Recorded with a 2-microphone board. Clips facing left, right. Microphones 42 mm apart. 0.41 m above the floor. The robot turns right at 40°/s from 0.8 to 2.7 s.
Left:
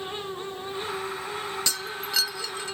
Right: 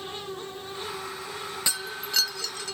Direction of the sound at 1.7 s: 15° right.